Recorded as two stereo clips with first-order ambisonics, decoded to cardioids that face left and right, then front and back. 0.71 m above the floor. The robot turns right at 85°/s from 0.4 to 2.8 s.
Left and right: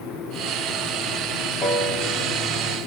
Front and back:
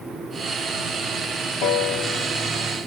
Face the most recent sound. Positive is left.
turn(degrees=115)